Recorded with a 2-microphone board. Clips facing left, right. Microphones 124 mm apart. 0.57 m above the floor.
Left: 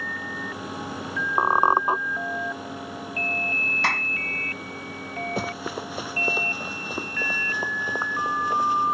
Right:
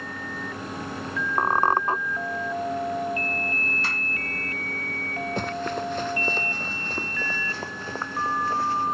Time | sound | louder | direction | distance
1.4 | a squeak | left 2 dB | 15° left (ahead or behind) | ?
3.8 | a clap | left 6 dB | 75° left (ahead or behind) | ?
5.4 | running footsteps | right 5 dB | 5° left (ahead or behind) | ?